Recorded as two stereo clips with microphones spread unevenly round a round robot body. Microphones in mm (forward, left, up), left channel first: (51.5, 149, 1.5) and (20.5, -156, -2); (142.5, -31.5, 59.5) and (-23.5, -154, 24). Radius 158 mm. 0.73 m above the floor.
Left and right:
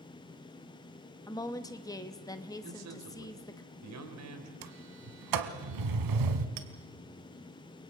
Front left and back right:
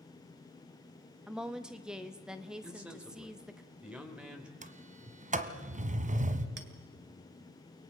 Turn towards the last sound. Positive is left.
turn(degrees=-110)